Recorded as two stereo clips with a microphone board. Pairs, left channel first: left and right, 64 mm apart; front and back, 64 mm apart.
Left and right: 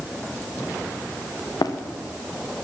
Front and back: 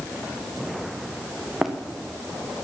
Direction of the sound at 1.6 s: 95° left.